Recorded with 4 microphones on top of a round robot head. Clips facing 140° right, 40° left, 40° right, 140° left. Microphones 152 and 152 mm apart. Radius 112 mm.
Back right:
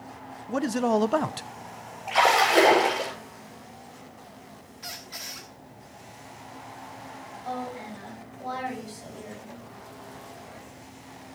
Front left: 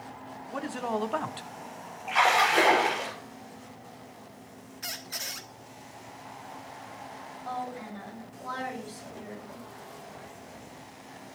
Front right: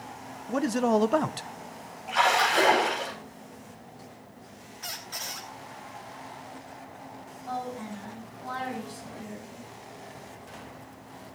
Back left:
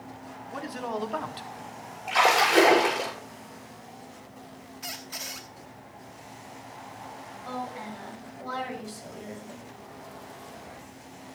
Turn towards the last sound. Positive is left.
turn(degrees=145)